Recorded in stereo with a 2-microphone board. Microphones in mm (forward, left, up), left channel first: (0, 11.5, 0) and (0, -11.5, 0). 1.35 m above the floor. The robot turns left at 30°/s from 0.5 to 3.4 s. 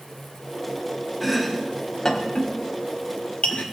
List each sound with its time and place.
1.2 s chopping: 5° right (ahead or behind), 1.3 m; by 3.6 s 60° left (ahead or behind), 1.3 m